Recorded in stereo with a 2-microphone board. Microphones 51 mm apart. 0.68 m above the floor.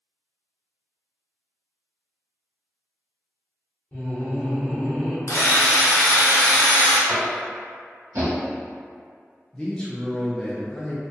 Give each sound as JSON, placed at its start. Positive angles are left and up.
{"t": 3.9, "sound": "laughter", "side_deg": 45, "distance_m": 1.4}
{"t": 5.3, "sound": "a drill", "side_deg": 85, "distance_m": 0.7}
{"t": 7.1, "sound": "tapping", "side_deg": -75, "distance_m": 0.9}
{"t": 9.5, "sound": "a man speaking", "side_deg": 20, "distance_m": 0.5}